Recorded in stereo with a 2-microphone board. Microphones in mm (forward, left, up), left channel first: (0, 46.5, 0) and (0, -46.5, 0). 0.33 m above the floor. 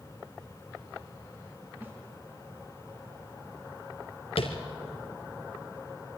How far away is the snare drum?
About 3.5 m.